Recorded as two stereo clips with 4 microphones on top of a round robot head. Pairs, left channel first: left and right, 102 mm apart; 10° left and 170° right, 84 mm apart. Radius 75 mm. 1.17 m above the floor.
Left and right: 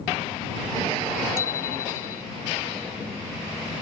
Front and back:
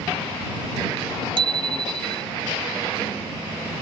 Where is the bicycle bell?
160° left.